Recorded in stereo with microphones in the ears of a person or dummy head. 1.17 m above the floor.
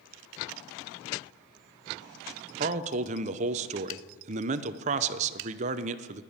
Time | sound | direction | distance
2.6 | a man speaking | 35° right (ahead or behind) | 0.7 m